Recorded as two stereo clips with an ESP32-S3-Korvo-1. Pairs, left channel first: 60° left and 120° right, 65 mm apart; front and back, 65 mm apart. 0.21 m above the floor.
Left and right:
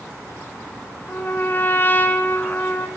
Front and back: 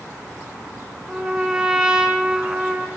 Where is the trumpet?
105° left, 1.9 m.